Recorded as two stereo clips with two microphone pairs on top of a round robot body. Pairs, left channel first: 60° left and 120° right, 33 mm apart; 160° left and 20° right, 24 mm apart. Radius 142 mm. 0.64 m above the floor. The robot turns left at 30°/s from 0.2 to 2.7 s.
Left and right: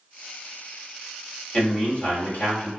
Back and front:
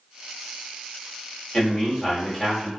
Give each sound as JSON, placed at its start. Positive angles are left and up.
{"t": 1.5, "sound": "a man speaking", "azimuth_deg": 110, "distance_m": 1.6}